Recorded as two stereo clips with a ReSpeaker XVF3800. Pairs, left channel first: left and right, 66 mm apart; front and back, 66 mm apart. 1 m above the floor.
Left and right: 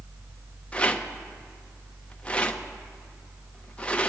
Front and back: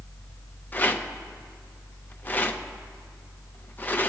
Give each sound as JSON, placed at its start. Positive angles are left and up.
{"t": 0.7, "sound": "a rattle", "azimuth_deg": 35, "distance_m": 0.6}